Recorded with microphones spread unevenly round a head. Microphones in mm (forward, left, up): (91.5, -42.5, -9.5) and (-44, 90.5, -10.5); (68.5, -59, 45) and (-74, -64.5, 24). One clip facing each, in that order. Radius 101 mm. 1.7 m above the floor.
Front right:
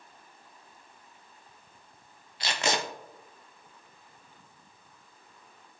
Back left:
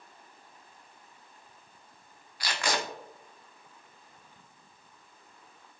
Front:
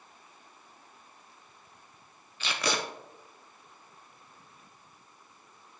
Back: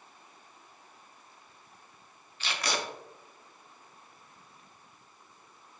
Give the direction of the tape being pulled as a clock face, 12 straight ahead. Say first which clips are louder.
Front right 2 dB, front 2 dB; 11 o'clock.